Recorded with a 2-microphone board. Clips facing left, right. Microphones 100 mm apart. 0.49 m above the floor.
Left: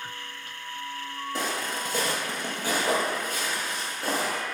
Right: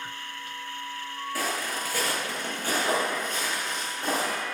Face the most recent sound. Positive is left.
turn(degrees=5)  # may be behind; listen again after turning